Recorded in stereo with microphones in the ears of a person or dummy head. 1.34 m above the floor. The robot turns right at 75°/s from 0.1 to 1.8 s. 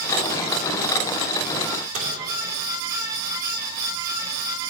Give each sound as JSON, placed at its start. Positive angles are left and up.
{"t": 1.9, "sound": "a microwave", "side_deg": -35, "distance_m": 3.0}